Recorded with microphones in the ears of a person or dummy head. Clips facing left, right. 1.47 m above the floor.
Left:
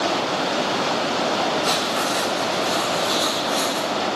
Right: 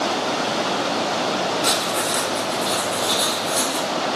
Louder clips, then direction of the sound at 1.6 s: Even; 70° right (ahead or behind).